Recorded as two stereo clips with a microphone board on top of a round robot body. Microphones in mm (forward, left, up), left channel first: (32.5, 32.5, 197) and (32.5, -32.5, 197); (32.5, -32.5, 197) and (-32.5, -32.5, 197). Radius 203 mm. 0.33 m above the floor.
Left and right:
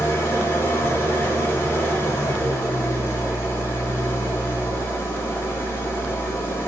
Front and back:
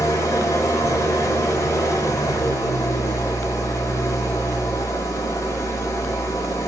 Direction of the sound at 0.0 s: 40° left.